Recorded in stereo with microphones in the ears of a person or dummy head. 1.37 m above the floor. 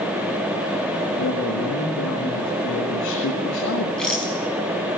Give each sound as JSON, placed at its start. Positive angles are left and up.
{"t": 1.2, "sound": "a man speaking", "side_deg": 55, "distance_m": 2.0}
{"t": 4.0, "sound": "a rattle", "side_deg": 5, "distance_m": 4.5}